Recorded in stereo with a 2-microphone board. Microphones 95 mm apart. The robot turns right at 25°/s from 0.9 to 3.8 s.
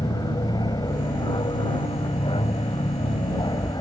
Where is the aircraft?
55° left; by 3.8 s 125° left.